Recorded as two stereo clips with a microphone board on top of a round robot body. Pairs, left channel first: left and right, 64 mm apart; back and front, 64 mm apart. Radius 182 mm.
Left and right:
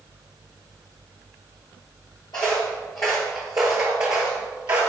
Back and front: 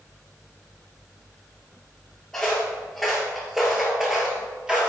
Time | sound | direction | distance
2.3 | footsteps | 100° left | 1.3 m